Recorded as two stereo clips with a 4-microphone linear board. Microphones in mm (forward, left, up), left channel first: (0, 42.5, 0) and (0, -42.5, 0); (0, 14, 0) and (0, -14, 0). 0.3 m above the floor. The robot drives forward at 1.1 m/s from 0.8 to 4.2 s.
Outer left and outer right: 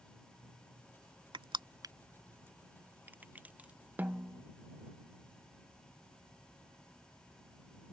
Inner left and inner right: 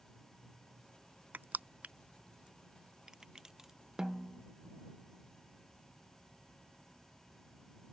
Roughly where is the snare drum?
Right.